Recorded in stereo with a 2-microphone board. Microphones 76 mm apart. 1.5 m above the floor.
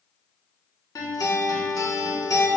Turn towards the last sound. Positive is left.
turn(degrees=55)  # may be behind; listen again after turning